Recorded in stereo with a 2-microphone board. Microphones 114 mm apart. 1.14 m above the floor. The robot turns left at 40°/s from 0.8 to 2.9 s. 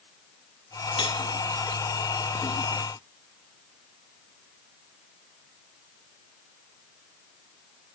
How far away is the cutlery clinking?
About 1.8 m.